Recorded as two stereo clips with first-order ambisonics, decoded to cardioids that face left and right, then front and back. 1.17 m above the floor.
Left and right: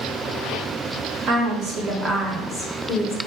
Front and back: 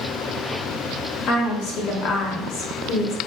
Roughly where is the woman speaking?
Ahead right.